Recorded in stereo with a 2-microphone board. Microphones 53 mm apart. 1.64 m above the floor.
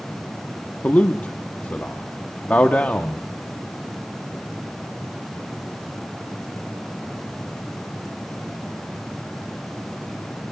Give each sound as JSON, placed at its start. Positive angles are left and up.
{"t": 0.8, "sound": "a man speaking", "side_deg": 30, "distance_m": 0.9}